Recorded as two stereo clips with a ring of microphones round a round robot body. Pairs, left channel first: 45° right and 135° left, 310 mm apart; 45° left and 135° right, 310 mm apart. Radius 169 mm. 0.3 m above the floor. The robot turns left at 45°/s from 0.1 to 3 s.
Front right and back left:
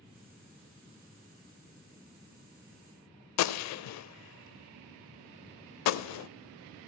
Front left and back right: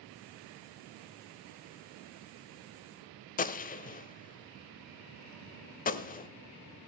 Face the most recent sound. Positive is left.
turn(degrees=-15)